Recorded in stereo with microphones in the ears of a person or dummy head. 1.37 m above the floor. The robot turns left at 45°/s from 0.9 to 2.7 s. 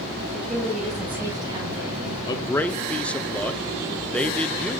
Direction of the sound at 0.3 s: 5° right.